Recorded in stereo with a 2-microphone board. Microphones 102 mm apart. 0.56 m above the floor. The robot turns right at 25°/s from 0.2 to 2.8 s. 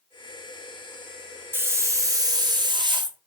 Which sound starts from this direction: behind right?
A hiss, at 1.5 s.